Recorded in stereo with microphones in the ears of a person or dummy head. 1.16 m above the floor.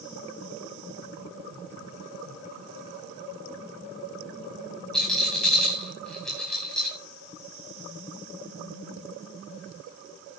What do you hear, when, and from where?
4.9 s a rattle: centre (ahead or behind), 4.5 m